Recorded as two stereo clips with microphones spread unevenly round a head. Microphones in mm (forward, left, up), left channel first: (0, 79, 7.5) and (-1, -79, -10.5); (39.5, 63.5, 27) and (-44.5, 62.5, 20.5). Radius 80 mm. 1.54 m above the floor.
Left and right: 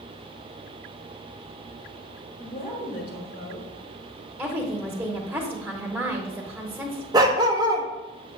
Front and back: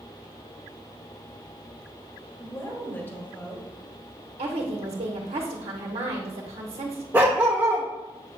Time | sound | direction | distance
2.4 | a woman speaking | 60° left | 2.5 m
4.4 | a woman speaking | 175° right | 1.2 m
7.1 | a dog barking | 120° right | 0.9 m